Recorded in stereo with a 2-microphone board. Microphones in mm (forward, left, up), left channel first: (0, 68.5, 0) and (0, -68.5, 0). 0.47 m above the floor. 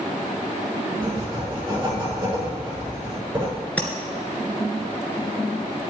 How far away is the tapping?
About 2 m.